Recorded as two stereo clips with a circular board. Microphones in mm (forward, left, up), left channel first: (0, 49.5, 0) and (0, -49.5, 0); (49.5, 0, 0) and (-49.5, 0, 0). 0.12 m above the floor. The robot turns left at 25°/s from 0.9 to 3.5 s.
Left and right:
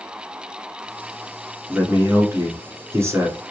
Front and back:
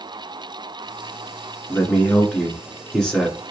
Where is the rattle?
No rattle in this recording.